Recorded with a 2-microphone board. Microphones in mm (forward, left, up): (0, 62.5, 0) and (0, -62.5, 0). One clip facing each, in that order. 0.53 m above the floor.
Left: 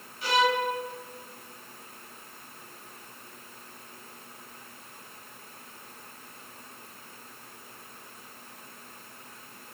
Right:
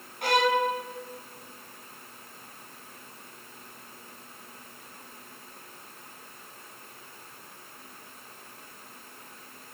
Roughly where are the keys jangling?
No keys jangling in this recording.